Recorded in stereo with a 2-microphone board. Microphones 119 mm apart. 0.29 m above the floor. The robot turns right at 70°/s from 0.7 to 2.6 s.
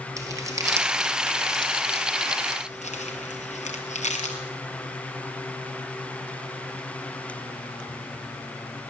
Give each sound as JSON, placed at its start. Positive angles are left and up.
{"t": 0.2, "sound": "crumpling", "side_deg": -25, "distance_m": 3.0}